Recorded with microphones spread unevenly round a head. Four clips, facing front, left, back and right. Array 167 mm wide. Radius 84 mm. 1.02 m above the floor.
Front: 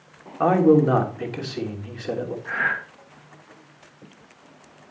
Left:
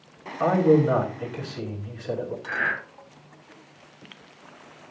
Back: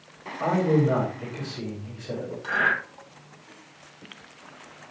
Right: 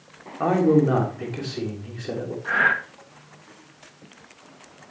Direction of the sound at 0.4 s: 20° right.